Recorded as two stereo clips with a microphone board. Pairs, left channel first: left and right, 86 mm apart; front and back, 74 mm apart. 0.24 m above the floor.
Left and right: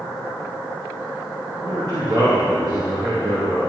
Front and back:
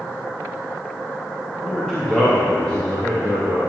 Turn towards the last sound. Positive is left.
turn(degrees=-75)